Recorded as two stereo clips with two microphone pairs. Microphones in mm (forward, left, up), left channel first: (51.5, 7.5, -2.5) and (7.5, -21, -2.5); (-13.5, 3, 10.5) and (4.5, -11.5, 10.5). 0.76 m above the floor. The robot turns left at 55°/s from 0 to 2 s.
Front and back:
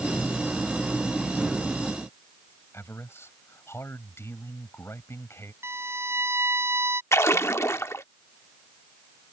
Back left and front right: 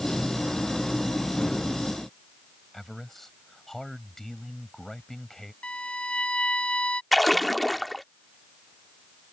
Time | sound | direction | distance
2.7 | a man speaking | 65° left | ?
5.6 | a violin | straight behind | ?
7.1 | a splash | 55° left | ?